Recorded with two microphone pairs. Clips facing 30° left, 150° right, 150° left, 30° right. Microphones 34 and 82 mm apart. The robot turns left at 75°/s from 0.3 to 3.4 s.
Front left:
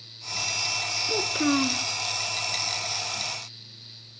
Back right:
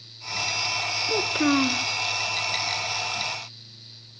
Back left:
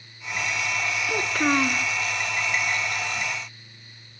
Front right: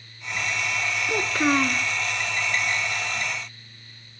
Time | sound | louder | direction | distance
1.1 | a child speaking | back right 2 dB, front right 1 dB | 100° right | 0.7 m